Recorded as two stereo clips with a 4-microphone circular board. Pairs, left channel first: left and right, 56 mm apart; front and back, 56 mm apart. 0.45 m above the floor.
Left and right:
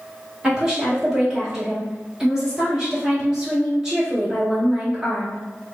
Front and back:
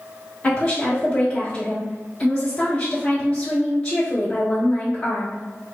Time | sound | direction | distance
0.4 | a woman speaking | 30° right | 1.1 m